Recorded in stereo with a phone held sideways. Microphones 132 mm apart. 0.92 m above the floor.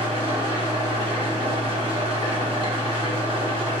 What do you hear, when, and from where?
0.0 s an engine running: 50° right (ahead or behind), 1.2 m